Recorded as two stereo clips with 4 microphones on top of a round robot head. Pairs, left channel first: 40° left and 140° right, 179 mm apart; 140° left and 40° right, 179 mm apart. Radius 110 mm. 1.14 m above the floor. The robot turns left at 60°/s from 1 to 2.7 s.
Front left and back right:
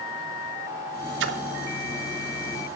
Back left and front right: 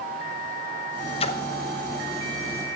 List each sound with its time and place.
1.2 s a splash: 155° right, 0.8 m; by 1.4 s 170° right, 0.8 m